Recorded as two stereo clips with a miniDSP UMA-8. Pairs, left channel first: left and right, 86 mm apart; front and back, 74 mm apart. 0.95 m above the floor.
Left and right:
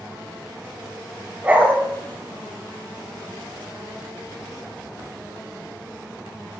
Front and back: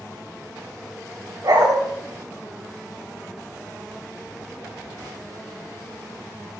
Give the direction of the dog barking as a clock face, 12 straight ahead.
5 o'clock.